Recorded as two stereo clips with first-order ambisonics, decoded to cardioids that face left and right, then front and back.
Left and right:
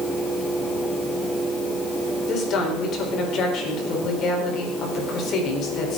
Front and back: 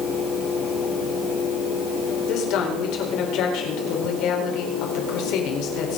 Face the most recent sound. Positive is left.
turn(degrees=35)